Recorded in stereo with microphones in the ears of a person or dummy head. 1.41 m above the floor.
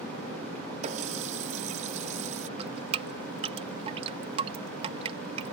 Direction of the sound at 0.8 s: 40° right (ahead or behind).